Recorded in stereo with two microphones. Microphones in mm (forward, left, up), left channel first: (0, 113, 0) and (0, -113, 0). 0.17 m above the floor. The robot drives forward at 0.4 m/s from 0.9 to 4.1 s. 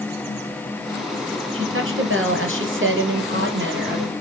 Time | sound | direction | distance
1.5 | a woman speaking | 65° right (ahead or behind) | 2.5 m